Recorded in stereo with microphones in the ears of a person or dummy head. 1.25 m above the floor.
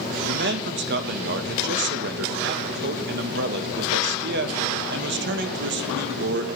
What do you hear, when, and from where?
0.3 s a man speaking: 55° right (ahead or behind), 1.3 m